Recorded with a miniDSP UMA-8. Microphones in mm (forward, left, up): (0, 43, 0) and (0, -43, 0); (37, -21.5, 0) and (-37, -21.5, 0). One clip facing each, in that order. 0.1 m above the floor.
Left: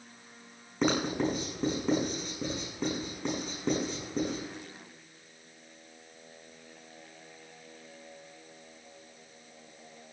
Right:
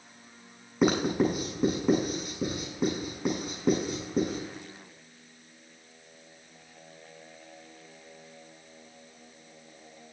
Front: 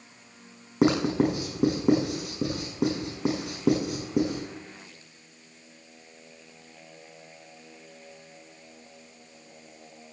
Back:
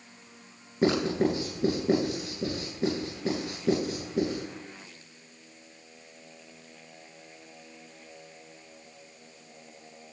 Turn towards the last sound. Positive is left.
turn(degrees=-5)